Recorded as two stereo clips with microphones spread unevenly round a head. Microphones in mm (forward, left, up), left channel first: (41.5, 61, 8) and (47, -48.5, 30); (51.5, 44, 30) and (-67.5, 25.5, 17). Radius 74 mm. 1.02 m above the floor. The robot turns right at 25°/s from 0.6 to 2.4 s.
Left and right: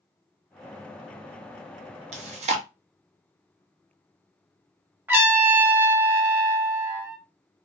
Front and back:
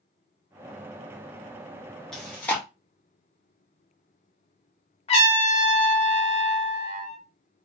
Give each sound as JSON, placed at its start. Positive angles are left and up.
{"t": 2.1, "sound": "chewing", "azimuth_deg": -75, "distance_m": 0.7}
{"t": 5.1, "sound": "a trumpet", "azimuth_deg": -10, "distance_m": 0.9}